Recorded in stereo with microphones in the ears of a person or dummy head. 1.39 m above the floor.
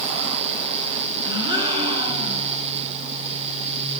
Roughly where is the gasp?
Right.